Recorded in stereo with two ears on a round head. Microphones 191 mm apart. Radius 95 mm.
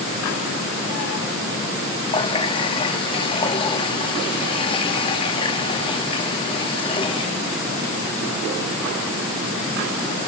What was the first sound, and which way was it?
A running tap, 25° left (ahead or behind).